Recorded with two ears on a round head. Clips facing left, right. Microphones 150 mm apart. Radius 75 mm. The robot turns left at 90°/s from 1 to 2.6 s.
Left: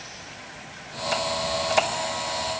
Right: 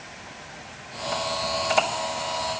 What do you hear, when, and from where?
Only background noise.